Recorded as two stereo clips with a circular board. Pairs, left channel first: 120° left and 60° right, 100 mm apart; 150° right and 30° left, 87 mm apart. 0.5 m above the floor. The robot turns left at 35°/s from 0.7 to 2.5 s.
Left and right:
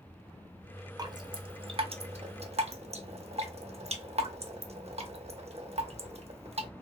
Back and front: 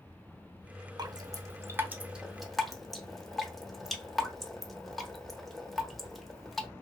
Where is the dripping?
10° right, 0.6 m; by 6.7 s 60° right, 0.6 m.